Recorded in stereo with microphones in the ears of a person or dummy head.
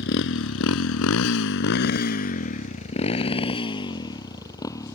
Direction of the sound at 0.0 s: 65° left (ahead or behind).